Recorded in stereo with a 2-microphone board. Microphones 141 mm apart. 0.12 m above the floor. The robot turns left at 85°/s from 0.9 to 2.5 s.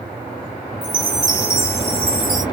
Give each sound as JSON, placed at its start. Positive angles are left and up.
{"t": 0.8, "sound": "a chime", "azimuth_deg": -5, "distance_m": 2.0}